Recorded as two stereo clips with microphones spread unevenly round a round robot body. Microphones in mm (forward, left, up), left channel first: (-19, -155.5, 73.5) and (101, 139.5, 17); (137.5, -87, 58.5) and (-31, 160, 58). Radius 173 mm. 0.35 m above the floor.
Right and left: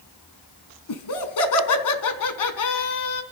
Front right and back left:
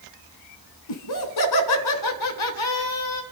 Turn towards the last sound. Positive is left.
turn(degrees=-80)